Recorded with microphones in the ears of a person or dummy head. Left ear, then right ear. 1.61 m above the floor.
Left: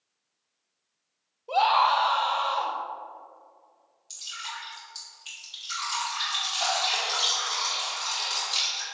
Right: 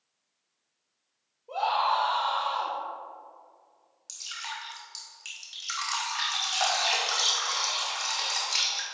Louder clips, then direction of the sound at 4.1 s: Even; 55° right (ahead or behind).